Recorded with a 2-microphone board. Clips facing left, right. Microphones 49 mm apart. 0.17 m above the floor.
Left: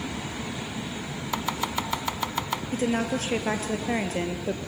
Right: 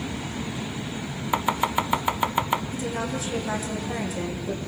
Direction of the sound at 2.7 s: 50° left (ahead or behind).